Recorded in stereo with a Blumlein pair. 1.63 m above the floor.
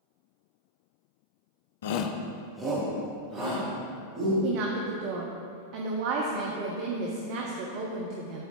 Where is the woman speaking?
45° right, 0.8 m.